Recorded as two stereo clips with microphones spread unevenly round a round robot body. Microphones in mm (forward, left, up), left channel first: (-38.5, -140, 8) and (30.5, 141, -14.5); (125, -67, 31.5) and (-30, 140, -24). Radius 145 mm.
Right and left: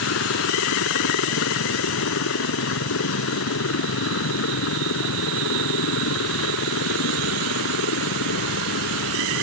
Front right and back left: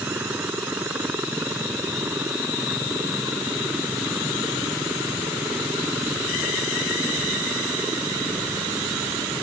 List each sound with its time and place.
0.0 s a helicopter: 150° right